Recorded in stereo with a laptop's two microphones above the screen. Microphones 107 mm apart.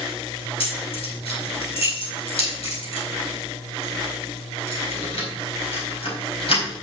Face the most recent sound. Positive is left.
turn(degrees=65)  # may be behind; listen again after turning